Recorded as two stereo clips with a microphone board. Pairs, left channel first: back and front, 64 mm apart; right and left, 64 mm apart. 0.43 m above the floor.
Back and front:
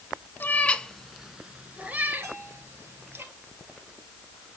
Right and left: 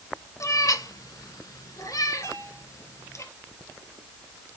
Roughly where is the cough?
No cough in this recording.